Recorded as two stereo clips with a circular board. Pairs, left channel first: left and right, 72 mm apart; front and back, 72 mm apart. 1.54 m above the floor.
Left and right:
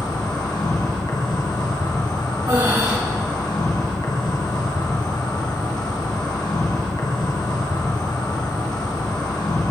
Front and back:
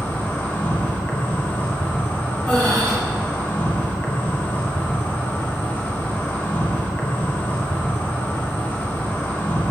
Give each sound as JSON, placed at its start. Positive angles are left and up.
{"t": 0.0, "sound": "an insect", "azimuth_deg": 65, "distance_m": 1.3}
{"t": 2.5, "sound": "breathing", "azimuth_deg": -75, "distance_m": 3.0}